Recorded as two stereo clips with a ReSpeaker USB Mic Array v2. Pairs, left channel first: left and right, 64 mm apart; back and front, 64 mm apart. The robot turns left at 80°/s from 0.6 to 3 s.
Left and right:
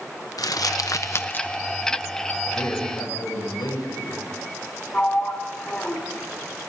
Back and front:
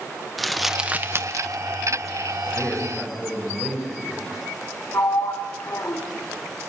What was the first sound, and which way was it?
Crumpling, 90° left.